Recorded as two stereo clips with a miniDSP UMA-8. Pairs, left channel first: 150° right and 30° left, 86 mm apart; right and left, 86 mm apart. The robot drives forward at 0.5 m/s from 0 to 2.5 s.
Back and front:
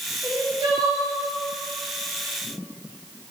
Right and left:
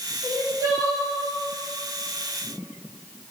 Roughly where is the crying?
Ahead left.